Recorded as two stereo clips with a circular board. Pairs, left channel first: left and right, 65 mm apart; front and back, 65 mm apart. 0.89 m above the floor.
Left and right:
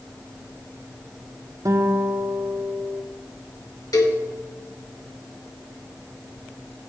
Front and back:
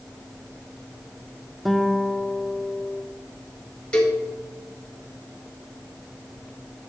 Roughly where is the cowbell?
Left.